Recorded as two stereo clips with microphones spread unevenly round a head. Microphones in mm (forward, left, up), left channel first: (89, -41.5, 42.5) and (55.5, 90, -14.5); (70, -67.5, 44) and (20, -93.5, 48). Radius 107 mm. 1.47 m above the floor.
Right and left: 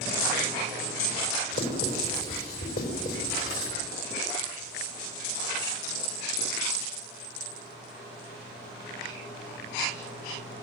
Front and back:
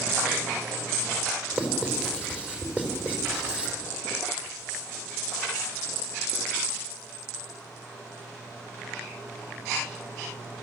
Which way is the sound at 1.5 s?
80° right.